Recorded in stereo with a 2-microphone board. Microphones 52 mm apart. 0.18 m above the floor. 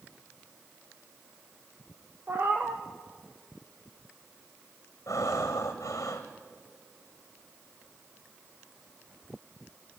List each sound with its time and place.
2.3 s a cat meowing: 40° right (ahead or behind), 1.4 m
5.1 s breathing: 85° left, 2 m